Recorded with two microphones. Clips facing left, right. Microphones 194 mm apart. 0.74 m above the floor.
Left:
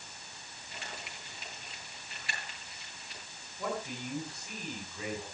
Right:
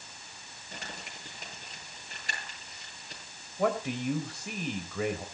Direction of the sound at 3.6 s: 80° right.